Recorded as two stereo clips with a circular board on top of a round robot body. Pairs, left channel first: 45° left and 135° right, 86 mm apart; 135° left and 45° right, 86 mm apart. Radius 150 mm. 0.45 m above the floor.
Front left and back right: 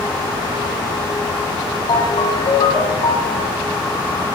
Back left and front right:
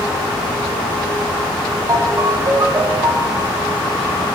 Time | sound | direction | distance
1.9 | a ringtone | 10° left | 8.5 m